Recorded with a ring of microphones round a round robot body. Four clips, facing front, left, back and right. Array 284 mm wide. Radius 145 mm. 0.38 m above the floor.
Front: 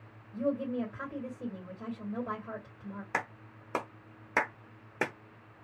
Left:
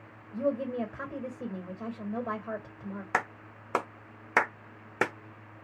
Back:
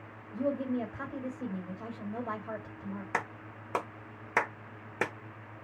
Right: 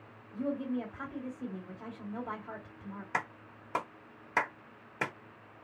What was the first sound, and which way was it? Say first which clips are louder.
A woman speaking: left 4 dB, even; 90° left.